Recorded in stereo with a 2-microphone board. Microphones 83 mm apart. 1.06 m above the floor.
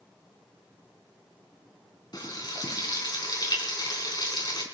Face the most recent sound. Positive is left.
turn(degrees=55)  # may be behind; listen again after turning